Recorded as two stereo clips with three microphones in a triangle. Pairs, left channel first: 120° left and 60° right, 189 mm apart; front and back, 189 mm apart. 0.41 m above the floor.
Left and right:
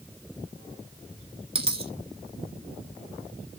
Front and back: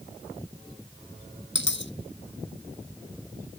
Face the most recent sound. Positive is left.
turn(degrees=0)